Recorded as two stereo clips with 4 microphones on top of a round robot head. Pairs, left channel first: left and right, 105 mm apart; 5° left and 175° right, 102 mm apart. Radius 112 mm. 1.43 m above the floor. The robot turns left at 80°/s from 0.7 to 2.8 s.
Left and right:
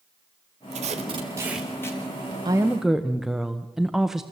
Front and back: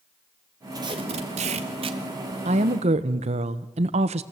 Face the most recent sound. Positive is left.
turn(degrees=-175)